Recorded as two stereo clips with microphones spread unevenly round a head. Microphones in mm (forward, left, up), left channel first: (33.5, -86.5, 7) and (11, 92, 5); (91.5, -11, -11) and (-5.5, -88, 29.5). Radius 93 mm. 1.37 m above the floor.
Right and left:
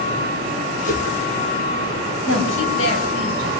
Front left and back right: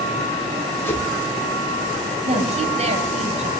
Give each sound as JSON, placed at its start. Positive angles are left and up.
{"t": 0.8, "sound": "a whoosh", "azimuth_deg": -35, "distance_m": 7.0}
{"t": 2.3, "sound": "a woman speaking", "azimuth_deg": -110, "distance_m": 8.5}